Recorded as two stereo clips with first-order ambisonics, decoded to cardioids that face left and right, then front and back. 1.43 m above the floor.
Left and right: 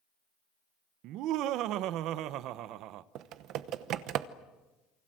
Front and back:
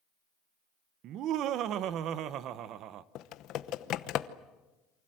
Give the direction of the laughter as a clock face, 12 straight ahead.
4 o'clock.